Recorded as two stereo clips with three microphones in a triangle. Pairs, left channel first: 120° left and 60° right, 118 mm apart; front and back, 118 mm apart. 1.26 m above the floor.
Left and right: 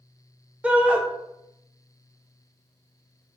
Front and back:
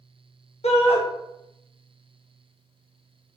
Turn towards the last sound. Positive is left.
turn(degrees=20)